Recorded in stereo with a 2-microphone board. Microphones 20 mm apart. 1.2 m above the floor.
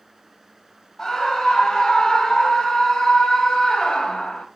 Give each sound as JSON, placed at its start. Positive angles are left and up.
{"t": 1.0, "sound": "a scream", "side_deg": 25, "distance_m": 7.5}